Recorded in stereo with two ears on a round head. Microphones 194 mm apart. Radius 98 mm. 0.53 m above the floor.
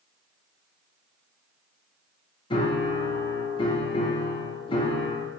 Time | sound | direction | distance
2.5 | a piano | 25° left (ahead or behind) | 0.6 m